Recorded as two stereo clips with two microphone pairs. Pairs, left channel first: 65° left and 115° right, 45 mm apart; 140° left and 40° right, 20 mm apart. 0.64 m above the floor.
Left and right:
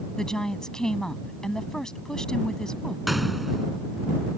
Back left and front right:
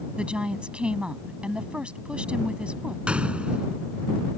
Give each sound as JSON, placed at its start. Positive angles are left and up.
{"t": 0.2, "sound": "a woman speaking", "azimuth_deg": -10}
{"t": 3.1, "sound": "a gunshot", "azimuth_deg": -25}